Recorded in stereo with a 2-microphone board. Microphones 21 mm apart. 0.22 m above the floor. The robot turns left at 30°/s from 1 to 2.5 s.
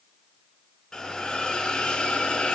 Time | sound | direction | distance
0.9 | a hiss | 145° left | 2 m